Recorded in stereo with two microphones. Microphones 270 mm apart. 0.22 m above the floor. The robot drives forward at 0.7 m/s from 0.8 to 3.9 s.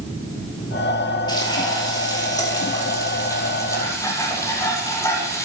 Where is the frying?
15° left (ahead or behind), 5.5 m; by 5.5 s 10° left (ahead or behind), 7 m.